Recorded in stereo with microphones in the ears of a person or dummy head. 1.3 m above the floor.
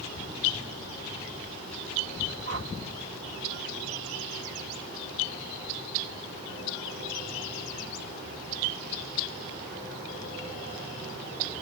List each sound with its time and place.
2.5 s a whoosh: 80° right